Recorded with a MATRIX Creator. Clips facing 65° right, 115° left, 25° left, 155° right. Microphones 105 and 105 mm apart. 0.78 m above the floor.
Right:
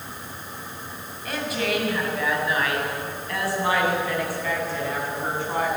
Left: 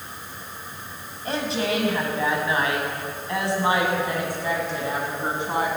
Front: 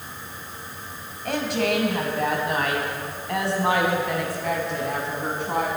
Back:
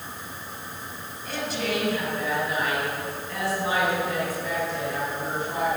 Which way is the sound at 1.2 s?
55° left.